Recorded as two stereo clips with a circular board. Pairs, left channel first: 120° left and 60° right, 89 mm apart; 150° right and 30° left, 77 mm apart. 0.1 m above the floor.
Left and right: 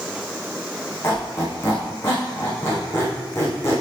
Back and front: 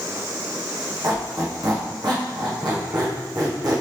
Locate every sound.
1.0 s a squeak: 60° left, 2.5 m